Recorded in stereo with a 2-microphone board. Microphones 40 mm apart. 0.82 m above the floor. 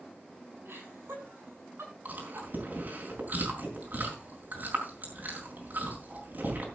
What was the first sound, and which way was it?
Laughter, 75° right (ahead or behind).